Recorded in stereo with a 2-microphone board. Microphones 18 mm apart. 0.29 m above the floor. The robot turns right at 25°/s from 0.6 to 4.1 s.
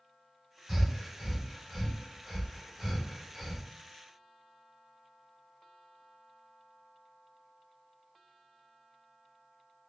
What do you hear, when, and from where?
0.7 s breathing: 20° right (ahead or behind), 1.6 m; by 3.6 s 10° left (ahead or behind), 1.6 m